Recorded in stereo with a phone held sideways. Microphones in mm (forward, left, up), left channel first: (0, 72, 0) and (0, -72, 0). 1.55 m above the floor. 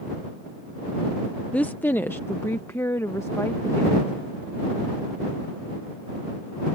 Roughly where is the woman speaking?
Centre.